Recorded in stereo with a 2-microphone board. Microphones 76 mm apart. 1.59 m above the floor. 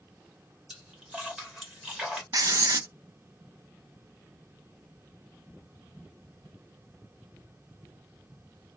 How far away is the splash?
About 1.2 m.